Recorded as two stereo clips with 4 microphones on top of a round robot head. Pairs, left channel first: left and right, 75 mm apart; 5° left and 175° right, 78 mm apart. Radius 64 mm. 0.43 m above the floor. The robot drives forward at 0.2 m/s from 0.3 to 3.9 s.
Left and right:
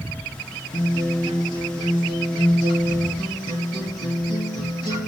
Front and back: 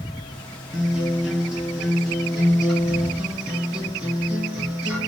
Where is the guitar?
110° left, 3 m; by 5.1 s 120° left, 3.5 m.